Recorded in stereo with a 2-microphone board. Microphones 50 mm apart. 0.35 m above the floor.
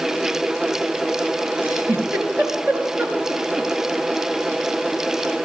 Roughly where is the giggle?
Right.